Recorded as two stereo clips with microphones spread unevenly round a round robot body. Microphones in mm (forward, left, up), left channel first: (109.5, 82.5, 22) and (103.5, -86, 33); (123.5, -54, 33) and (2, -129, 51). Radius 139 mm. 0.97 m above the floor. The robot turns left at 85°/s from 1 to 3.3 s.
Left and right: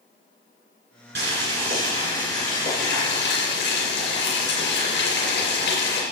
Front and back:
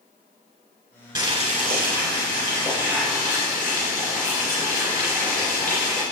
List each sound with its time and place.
1.1 s boiling: 80° right, 3.5 m; by 6.0 s 95° left, 3.5 m